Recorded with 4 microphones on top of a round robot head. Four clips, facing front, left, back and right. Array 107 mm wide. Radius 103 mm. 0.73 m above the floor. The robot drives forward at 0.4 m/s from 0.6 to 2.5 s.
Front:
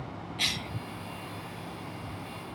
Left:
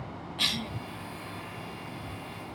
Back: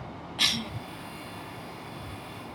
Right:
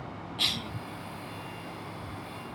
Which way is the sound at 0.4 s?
170° left.